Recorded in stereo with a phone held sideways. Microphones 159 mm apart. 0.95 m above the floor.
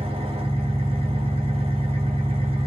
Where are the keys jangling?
I don't hear keys jangling.